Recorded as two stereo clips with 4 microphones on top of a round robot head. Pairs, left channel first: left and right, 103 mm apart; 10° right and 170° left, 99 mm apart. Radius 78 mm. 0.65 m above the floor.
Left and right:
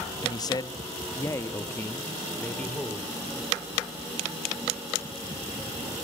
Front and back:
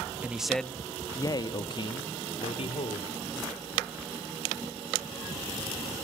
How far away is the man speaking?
About 0.7 m.